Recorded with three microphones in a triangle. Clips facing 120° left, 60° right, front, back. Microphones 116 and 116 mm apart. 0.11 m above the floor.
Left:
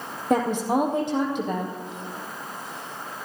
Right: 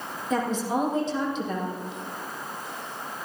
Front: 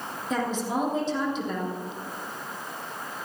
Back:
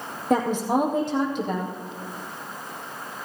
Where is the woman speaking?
145° left, 4 m.